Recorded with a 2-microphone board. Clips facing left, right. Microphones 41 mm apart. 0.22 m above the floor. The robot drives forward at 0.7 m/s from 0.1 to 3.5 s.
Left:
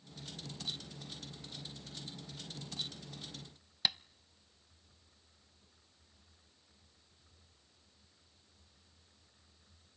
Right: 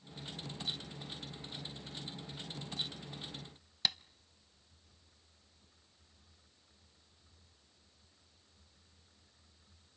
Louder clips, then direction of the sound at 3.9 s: Left 1 dB; 5° left (ahead or behind).